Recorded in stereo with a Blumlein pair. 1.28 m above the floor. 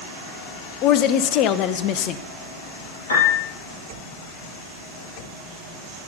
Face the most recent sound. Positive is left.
turn(degrees=65)